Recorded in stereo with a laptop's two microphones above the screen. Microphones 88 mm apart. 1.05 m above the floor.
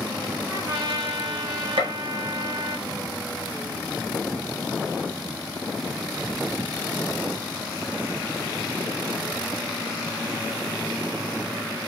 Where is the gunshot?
80° right, 1.4 m.